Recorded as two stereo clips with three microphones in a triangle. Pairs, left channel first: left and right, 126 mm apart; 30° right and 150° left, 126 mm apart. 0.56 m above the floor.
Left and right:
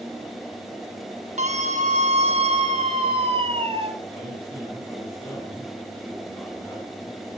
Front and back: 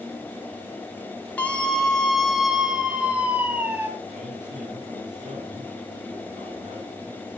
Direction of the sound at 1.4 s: 110° right.